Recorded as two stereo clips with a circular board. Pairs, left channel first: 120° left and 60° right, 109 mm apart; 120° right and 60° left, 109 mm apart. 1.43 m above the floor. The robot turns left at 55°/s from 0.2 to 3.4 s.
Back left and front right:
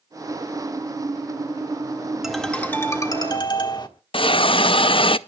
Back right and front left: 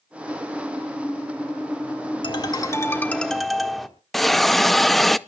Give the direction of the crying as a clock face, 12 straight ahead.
No crying in this recording.